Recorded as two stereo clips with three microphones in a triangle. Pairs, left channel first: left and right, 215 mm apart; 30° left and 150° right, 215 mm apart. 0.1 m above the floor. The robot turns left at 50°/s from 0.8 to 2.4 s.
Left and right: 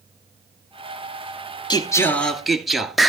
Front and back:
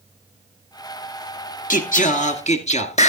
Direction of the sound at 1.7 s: 35° left.